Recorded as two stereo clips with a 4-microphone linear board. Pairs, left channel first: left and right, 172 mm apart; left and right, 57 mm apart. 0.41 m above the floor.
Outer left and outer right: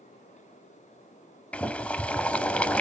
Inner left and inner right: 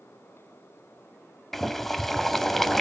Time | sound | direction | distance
1.5 | boiling | 5° left (ahead or behind) | 0.7 m